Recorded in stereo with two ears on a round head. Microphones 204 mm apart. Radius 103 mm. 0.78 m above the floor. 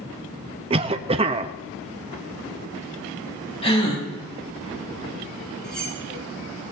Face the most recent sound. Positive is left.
turn(degrees=5)  # may be behind; listen again after turning